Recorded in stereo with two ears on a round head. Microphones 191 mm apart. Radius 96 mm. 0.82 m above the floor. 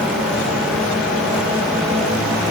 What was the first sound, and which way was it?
Only background noise.